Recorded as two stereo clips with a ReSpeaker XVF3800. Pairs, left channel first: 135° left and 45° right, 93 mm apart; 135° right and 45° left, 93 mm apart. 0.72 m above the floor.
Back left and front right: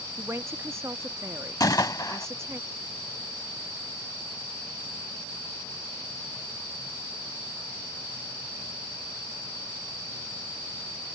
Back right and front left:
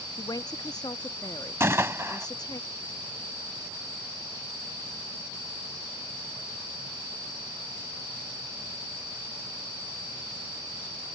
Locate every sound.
0.2 s a man speaking: 100° right
1.6 s a gunshot: 100° left